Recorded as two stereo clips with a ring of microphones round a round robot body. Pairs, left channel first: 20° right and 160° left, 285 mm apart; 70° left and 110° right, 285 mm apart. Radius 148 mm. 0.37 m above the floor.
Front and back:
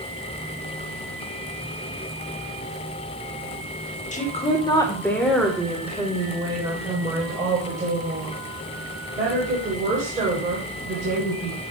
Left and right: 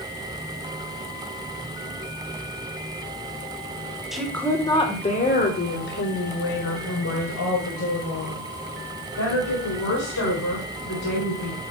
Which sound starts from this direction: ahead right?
A woman speaking, at 4.1 s.